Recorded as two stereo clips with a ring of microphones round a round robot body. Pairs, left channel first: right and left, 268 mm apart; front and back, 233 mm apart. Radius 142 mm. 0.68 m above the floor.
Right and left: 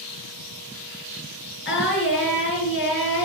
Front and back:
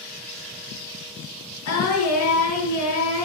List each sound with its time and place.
1.6 s singing: 40° right, 5 m